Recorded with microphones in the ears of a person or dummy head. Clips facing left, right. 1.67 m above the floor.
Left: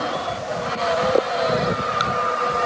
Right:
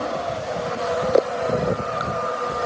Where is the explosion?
I don't hear an explosion.